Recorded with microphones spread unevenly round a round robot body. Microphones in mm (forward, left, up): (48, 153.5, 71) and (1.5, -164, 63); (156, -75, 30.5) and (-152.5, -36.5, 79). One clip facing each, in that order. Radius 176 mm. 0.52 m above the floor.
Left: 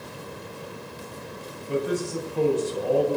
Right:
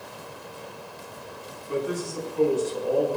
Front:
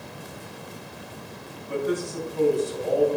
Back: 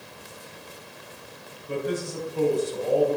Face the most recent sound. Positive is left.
turn(degrees=115)